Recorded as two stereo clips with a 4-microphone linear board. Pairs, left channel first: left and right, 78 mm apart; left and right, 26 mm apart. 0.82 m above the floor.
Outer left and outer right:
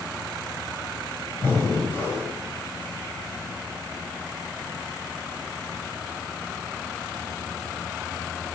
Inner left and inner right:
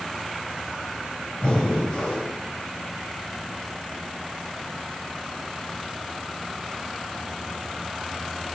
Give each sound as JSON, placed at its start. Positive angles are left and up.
{"t": 1.4, "sound": "breathing", "side_deg": 35, "distance_m": 4.5}